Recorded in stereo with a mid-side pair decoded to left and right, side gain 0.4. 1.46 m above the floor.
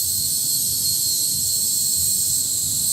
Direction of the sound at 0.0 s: 45° right.